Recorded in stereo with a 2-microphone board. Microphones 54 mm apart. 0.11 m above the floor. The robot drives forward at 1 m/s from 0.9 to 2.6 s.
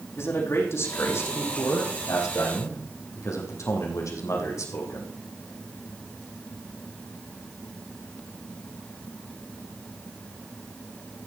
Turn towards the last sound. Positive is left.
turn(degrees=70)  # may be behind; listen again after turning